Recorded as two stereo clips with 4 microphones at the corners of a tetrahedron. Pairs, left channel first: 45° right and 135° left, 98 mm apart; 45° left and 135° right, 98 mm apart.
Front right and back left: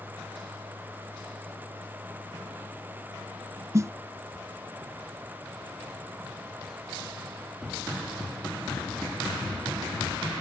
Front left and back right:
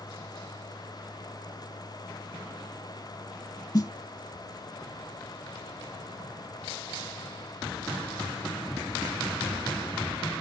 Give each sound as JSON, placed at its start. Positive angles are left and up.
{"t": 3.7, "sound": "a snare drum", "azimuth_deg": 85}